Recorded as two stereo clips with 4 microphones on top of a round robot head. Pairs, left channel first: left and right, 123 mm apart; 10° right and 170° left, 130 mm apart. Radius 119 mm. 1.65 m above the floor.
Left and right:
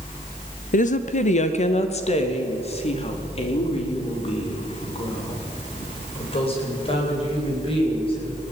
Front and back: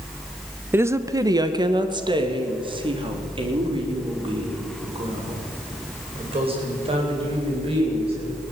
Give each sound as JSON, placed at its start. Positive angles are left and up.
{"t": 0.7, "sound": "a woman speaking", "azimuth_deg": 100, "distance_m": 1.2}